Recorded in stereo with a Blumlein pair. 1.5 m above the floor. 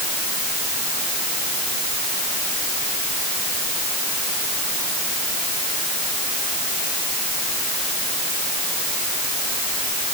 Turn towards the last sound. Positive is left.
No sound to turn to.